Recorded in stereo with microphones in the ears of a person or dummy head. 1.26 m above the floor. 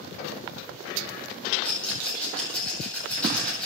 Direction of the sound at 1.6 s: 5° left (ahead or behind).